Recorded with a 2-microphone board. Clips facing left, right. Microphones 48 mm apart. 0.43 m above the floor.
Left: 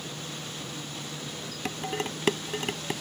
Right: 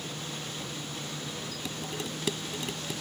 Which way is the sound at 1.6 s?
50° left (ahead or behind).